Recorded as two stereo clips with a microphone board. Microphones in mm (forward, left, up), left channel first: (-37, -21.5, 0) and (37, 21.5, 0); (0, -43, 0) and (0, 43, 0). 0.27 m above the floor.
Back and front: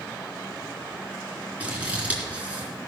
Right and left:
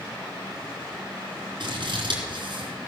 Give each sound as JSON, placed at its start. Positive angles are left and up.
{"t": 1.6, "sound": "scissors", "azimuth_deg": 100, "distance_m": 3.5}